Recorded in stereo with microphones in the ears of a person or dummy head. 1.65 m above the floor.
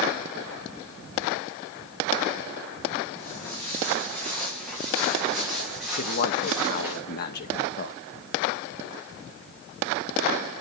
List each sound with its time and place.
3.1 s footsteps: 15° left (ahead or behind), 6 m; by 7.0 s 15° right (ahead or behind), 6.5 m
6.0 s a man speaking: 55° left (ahead or behind), 1.1 m